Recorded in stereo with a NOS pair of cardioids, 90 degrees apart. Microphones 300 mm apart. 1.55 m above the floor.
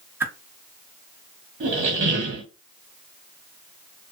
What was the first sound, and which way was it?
A whoosh, 5° right.